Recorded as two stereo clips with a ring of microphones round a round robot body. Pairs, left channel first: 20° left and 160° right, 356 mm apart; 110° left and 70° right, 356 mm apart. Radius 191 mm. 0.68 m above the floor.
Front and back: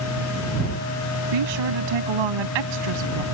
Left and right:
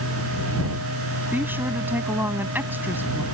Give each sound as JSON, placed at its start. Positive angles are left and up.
{"t": 1.3, "sound": "a woman speaking", "azimuth_deg": -150}